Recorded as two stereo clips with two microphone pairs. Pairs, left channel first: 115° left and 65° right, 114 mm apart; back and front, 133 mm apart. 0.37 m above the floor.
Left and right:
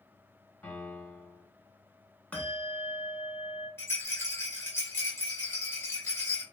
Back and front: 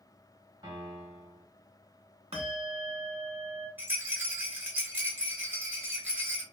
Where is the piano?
45° left, 2.0 m.